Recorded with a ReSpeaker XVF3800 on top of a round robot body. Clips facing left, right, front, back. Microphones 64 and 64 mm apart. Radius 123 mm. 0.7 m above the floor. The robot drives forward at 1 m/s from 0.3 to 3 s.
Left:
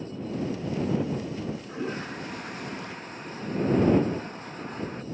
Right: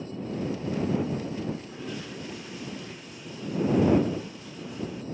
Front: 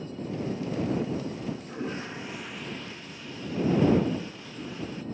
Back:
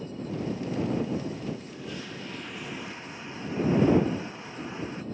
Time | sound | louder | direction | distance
1.4 | a toilet flushing | left 1 dB, front 2 dB | 35° left | ?